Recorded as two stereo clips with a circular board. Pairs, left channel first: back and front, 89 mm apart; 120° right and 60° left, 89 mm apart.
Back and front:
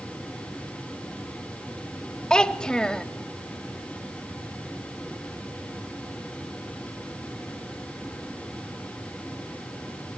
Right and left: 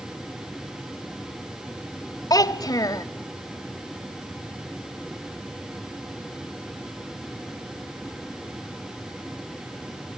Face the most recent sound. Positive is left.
turn(degrees=-100)